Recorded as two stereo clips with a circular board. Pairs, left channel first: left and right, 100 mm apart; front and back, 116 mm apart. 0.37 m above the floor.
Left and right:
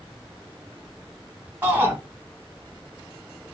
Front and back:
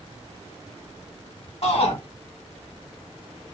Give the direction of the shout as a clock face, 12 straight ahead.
1 o'clock.